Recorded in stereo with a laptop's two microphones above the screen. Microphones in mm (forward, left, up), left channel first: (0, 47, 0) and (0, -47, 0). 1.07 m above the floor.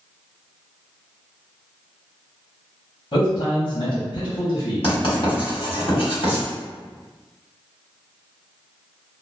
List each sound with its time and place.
3.1 s a man speaking: 60° left (ahead or behind), 0.9 m
4.8 s writing: 75° left (ahead or behind), 1.5 m